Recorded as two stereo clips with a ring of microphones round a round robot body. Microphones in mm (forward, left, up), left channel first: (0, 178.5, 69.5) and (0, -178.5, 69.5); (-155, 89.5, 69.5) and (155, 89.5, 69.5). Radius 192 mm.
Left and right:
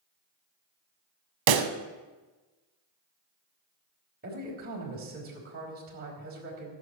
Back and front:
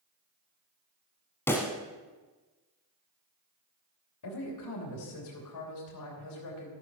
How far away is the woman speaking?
About 3.5 m.